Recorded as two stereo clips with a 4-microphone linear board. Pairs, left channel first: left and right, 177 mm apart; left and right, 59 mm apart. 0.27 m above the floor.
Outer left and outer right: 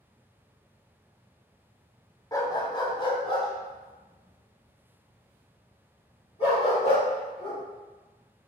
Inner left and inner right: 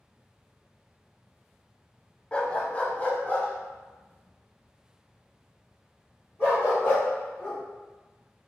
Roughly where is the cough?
No cough in this recording.